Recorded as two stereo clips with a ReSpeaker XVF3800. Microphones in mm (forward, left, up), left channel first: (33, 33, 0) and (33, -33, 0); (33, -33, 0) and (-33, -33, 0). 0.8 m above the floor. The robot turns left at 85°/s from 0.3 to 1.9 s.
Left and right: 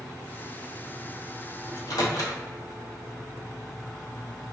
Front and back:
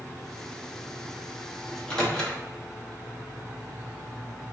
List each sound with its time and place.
1.7 s a microwave: 100° left, 0.9 m; by 2.4 s 80° left, 0.9 m